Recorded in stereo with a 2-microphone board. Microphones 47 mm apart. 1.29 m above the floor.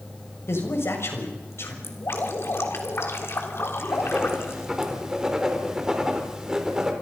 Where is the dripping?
65° left (ahead or behind), 3.5 m.